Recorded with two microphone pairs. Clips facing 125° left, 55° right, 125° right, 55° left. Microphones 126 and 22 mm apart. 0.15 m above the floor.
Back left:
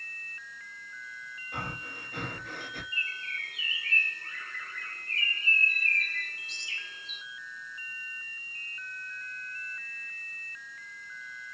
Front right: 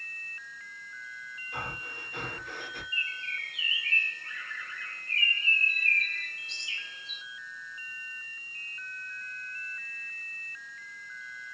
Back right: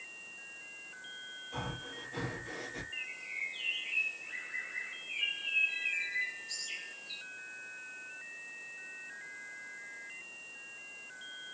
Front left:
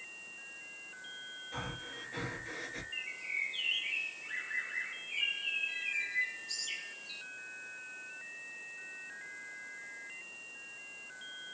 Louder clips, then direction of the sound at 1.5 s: Even, back right 1 dB; 115° left.